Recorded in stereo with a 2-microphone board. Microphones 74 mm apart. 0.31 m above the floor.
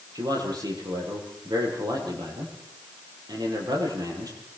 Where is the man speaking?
70° right (ahead or behind), 10 m.